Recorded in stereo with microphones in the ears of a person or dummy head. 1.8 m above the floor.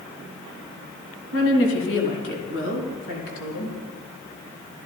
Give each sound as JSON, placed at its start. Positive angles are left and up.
{"t": 1.3, "sound": "a woman speaking", "side_deg": 75, "distance_m": 2.0}